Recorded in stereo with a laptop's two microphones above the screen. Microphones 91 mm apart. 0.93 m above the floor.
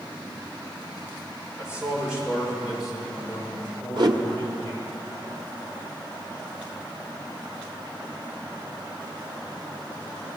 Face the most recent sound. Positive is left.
turn(degrees=-55)  # may be behind; listen again after turning